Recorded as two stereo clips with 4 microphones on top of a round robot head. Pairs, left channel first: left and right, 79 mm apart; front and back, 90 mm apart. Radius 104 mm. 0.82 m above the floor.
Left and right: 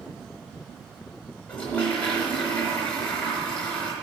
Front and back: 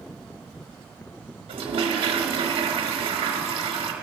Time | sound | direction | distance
1.5 | a toilet flushing | 165° left | 1.0 m